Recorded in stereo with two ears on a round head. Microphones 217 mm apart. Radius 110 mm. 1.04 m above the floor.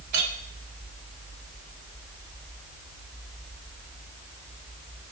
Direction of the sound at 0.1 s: 85° right.